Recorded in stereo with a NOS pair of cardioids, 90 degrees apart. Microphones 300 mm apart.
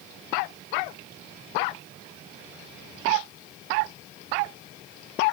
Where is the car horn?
No car horn in this recording.